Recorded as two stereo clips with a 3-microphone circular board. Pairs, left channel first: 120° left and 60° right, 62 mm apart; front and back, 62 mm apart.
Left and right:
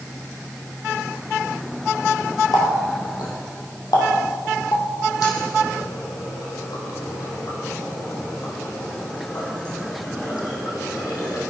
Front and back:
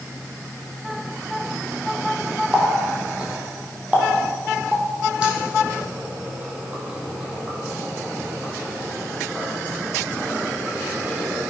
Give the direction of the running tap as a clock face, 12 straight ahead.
8 o'clock.